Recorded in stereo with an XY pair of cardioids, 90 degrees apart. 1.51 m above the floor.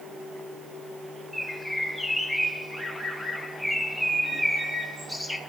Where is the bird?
Straight ahead, 4 m.